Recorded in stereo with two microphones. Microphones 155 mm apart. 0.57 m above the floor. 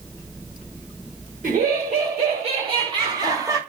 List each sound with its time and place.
1.4 s laughter: 65° right (ahead or behind), 3 m; by 3.6 s 20° right (ahead or behind), 2.5 m